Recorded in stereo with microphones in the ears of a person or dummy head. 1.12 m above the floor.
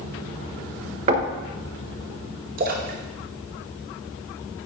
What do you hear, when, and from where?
1.1 s knocking: 40° right (ahead or behind), 1.0 m
2.6 s a splash: 45° right (ahead or behind), 1.0 m